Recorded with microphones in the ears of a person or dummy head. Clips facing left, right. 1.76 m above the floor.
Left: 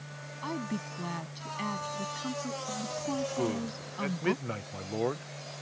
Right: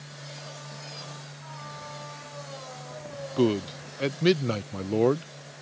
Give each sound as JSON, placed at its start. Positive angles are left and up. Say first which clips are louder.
{"t": 0.4, "sound": "a woman speaking", "louder": "left 14 dB", "side_deg": 90}
{"t": 3.4, "sound": "a man speaking", "louder": "right 7 dB", "side_deg": -50}